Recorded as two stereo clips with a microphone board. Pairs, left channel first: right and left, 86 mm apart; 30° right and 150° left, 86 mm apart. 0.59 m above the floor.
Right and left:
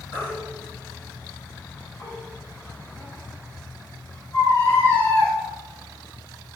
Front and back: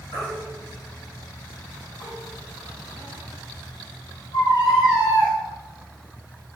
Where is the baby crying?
35° right, 3.5 m.